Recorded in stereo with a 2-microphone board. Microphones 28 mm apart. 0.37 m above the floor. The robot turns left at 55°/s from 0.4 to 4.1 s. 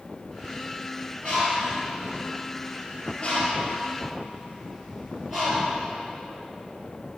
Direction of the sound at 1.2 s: 25° left (ahead or behind).